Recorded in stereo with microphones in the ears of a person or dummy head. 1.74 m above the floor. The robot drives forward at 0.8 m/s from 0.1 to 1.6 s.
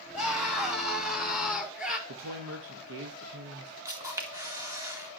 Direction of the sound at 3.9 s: 15° right (ahead or behind).